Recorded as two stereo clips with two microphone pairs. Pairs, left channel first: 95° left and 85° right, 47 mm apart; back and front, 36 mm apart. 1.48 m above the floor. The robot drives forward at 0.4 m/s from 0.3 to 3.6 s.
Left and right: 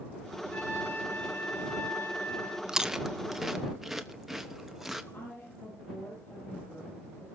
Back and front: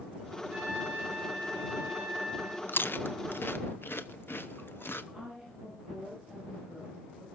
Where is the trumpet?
50° left, 6 m; by 2.6 s 55° left, 5.5 m.